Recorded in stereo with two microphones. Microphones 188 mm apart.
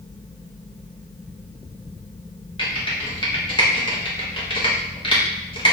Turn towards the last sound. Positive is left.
turn(degrees=25)  # may be behind; listen again after turning